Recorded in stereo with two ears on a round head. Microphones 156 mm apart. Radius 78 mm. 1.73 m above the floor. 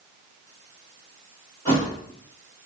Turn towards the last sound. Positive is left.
turn(degrees=15)  # may be behind; listen again after turning